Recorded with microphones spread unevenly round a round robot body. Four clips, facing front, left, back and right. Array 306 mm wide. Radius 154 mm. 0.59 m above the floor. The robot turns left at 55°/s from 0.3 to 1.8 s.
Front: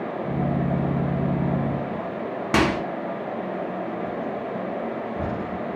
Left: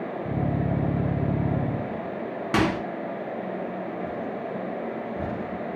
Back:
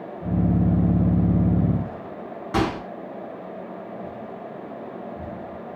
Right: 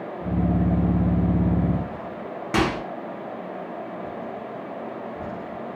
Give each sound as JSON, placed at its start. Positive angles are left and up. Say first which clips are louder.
{"t": 2.5, "sound": "a microwave", "louder": "right 1 dB, front 2 dB", "azimuth_deg": 15, "distance_m": 0.8}